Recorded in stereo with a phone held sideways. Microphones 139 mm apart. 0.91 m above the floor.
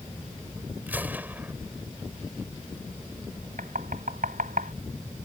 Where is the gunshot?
10° right (ahead or behind).